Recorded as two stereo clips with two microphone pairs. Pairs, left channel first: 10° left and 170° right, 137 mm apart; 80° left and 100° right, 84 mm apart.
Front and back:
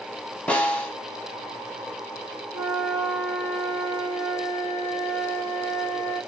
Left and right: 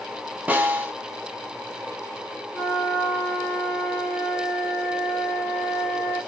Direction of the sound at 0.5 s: 60° right.